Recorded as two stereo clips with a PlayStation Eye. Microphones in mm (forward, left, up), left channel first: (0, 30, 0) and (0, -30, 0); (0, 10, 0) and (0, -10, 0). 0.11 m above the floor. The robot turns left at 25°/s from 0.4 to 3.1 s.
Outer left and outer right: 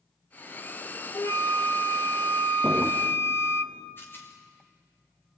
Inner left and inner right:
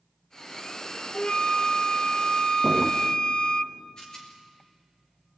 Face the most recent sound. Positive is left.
turn(degrees=40)  # may be behind; listen again after turning